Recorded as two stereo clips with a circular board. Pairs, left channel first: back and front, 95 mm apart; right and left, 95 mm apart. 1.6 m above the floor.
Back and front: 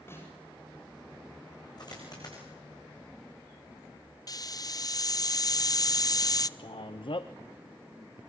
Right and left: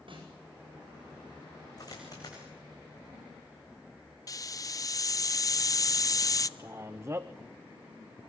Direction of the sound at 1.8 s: 135° right.